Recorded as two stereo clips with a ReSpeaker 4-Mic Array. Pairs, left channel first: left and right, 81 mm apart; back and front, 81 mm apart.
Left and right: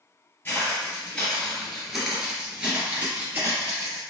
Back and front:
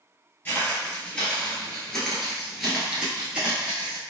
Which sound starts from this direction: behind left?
Footsteps, at 0.5 s.